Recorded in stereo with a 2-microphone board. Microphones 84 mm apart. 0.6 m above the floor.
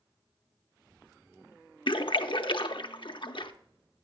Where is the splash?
80° left, 0.5 m.